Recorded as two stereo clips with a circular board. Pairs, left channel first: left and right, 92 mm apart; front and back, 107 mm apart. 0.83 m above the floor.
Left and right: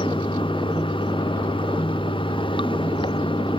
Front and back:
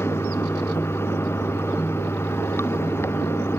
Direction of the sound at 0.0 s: 65° left.